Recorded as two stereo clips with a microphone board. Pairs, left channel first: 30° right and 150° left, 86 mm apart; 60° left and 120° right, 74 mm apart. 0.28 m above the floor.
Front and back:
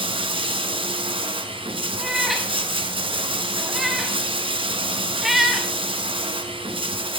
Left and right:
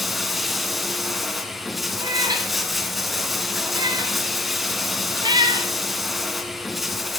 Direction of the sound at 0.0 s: 150° left.